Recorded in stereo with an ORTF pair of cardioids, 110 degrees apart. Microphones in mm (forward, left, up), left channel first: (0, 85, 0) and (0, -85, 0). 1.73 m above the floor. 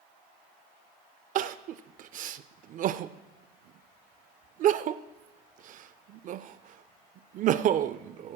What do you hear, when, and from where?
1.4 s crying: 50° right, 0.5 m